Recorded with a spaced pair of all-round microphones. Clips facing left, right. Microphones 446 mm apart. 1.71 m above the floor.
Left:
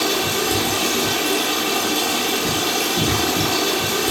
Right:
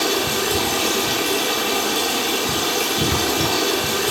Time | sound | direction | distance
0.0 | running water | 35° left (ahead or behind) | 0.8 m